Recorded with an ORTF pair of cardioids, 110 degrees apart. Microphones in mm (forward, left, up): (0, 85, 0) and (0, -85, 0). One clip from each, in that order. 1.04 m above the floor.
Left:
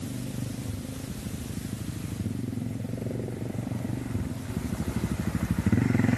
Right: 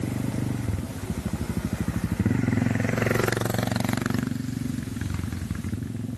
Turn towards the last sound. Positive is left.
No sound to turn to.